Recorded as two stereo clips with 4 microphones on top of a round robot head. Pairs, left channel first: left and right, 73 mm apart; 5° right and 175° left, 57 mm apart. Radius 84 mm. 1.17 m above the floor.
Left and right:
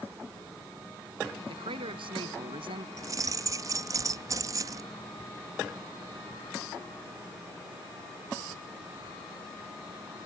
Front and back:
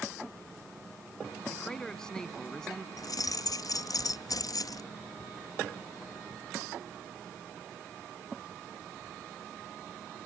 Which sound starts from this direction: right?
A man speaking, at 1.5 s.